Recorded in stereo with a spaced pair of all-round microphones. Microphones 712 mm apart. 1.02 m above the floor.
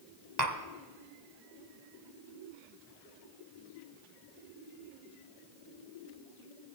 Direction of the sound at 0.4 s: 70° right (ahead or behind).